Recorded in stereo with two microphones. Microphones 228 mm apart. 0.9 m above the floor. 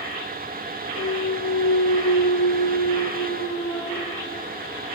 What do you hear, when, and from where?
0.9 s a clunk: 70° left (ahead or behind), 6.5 m